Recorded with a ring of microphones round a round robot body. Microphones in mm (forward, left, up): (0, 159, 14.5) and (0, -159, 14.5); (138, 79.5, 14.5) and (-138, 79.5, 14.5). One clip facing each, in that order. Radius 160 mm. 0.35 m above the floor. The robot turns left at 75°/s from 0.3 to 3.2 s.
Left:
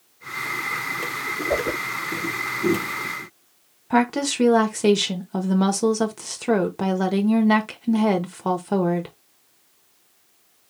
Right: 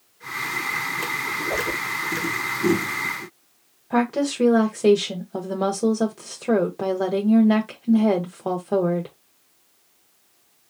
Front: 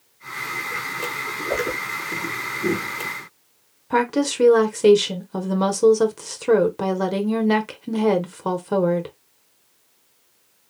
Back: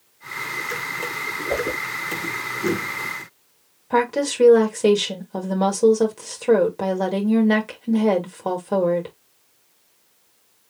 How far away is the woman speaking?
About 1.1 m.